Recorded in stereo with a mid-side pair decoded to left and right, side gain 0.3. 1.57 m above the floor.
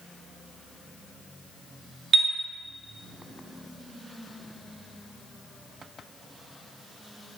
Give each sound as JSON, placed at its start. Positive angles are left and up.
{"t": 2.1, "sound": "a chime", "azimuth_deg": -70, "distance_m": 0.7}